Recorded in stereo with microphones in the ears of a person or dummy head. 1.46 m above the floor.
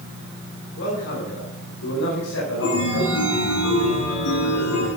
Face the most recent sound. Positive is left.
turn(degrees=85)